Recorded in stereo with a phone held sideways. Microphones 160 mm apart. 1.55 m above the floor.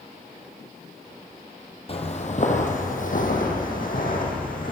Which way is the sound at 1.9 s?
40° left (ahead or behind).